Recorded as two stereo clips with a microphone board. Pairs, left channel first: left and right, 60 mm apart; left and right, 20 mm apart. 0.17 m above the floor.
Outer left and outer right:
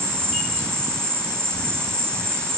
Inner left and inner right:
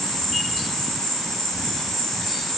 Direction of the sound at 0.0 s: 25° left (ahead or behind).